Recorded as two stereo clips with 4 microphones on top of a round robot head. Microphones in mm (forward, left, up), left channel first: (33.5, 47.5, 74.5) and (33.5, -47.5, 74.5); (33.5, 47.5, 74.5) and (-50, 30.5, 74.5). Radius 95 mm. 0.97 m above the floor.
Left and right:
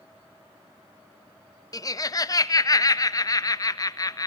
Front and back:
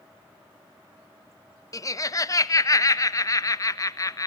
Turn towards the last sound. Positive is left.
turn(degrees=50)